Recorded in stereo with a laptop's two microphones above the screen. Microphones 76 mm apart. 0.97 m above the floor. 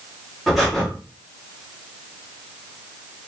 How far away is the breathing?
About 1.2 m.